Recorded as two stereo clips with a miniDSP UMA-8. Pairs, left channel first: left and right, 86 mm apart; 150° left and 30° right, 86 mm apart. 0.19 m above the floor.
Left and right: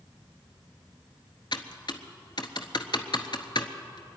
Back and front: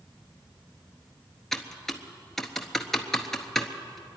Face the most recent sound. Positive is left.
turn(degrees=65)